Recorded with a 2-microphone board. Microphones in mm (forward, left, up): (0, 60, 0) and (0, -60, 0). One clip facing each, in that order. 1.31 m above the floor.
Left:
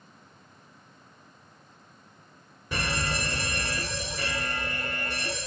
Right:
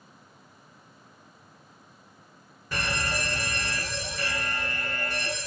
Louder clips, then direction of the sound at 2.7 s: Even; 20° left (ahead or behind).